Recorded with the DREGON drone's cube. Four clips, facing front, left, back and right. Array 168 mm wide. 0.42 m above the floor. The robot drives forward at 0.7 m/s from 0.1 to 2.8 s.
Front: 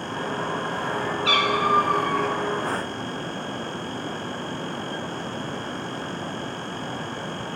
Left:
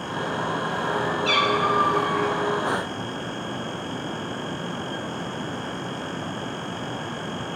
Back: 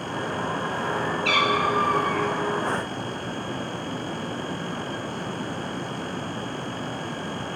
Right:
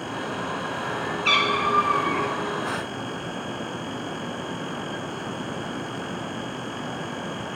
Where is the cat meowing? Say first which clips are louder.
Even, front 2 dB; 70° right, 1.7 m; by 2.3 s 95° right, 1.6 m.